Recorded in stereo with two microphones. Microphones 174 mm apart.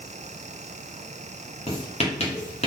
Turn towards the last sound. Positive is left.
turn(degrees=40)  # may be behind; listen again after turning